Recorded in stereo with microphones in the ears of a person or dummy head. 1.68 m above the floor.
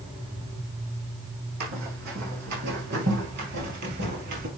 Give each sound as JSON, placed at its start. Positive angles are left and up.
{"t": 1.6, "sound": "running footsteps", "side_deg": -55, "distance_m": 4.5}